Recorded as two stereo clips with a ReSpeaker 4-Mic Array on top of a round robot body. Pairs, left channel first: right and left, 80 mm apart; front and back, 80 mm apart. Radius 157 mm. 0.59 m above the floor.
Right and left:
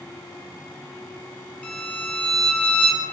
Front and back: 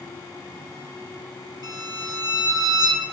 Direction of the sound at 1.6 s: 165° right.